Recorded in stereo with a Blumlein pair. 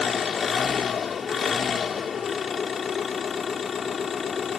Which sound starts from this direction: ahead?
An engine running, at 0.0 s.